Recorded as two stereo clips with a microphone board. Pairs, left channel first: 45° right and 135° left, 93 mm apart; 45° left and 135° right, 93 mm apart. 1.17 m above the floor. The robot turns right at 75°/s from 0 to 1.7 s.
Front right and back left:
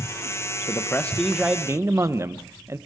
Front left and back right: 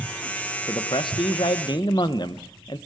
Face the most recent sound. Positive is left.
turn(degrees=75)